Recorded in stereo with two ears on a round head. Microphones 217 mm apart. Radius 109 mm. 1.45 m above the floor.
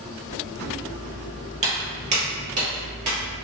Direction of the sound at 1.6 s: 30° right (ahead or behind).